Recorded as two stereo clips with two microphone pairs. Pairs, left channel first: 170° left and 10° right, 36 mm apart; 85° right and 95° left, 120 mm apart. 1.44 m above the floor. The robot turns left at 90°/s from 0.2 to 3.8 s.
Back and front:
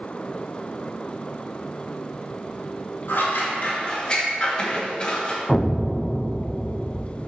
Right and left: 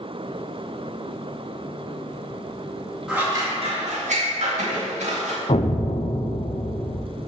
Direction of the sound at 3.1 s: Straight behind.